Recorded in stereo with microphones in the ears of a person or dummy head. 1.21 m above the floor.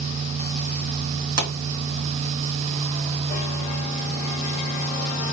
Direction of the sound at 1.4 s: 80° right.